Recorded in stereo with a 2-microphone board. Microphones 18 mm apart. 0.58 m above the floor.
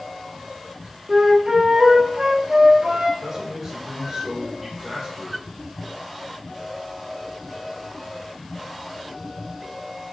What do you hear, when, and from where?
1.1 s a flute: 30° right (ahead or behind), 1.0 m
3.2 s a man speaking: 5° right (ahead or behind), 2 m